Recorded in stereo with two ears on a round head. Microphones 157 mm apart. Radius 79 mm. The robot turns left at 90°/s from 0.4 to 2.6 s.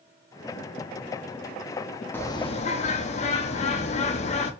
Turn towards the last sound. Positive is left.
turn(degrees=125)